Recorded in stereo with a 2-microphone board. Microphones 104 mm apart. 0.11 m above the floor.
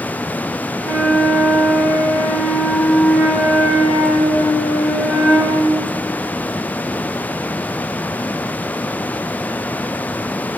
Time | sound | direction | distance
0.8 | a flute | centre (ahead or behind) | 1.1 m